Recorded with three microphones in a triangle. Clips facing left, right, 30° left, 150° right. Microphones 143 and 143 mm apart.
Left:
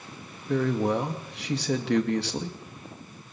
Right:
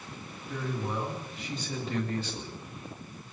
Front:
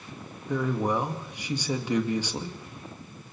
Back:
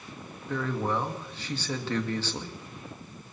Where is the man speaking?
105° left, 2 m.